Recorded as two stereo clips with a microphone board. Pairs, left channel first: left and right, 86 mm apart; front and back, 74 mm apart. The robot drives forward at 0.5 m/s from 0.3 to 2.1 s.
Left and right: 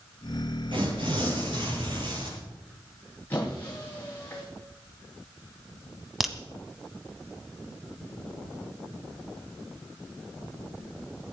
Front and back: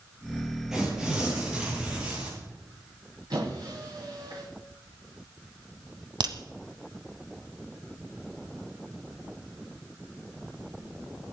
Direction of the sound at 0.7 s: 100° right.